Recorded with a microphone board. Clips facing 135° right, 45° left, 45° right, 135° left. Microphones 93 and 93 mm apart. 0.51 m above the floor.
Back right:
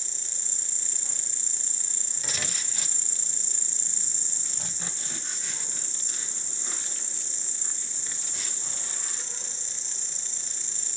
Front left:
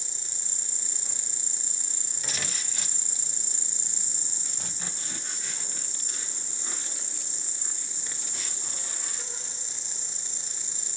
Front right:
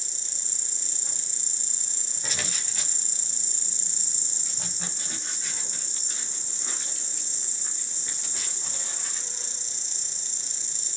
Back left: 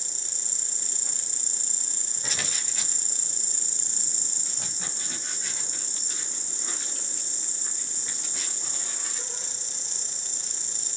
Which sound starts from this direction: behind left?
An insect, at 0.0 s.